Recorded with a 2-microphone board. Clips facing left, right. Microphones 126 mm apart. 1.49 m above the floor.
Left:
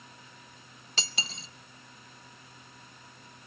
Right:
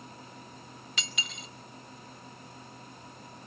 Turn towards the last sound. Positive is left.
turn(degrees=30)  # may be behind; listen again after turning